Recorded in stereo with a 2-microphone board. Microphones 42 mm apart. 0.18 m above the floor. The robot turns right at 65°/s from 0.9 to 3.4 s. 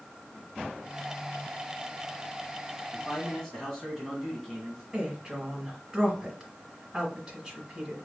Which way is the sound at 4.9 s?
5° right (ahead or behind).